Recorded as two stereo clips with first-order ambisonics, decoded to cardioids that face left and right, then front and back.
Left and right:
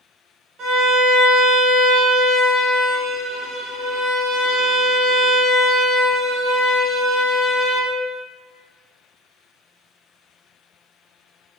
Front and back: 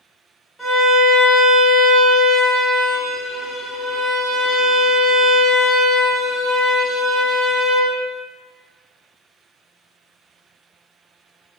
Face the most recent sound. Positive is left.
turn(degrees=-85)